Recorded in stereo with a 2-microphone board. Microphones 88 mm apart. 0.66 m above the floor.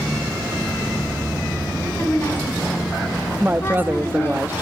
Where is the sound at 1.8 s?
25° left (ahead or behind), 7.5 m.